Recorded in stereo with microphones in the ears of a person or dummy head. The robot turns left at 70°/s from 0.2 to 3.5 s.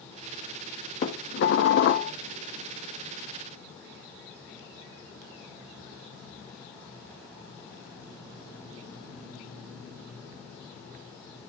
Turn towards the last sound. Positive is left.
turn(degrees=-35)